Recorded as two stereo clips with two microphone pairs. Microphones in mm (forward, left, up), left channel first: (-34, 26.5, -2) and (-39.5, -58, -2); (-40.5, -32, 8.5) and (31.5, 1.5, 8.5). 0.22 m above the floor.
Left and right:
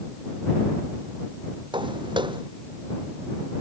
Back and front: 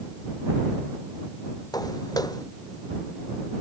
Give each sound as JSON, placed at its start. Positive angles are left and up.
{"t": 1.7, "sound": "footsteps", "azimuth_deg": -115}